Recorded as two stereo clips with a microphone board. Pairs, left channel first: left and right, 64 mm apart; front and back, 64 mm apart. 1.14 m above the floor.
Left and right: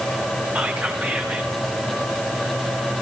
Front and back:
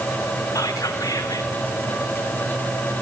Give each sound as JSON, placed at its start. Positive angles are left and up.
{"t": 0.6, "sound": "whispering", "azimuth_deg": -25, "distance_m": 2.5}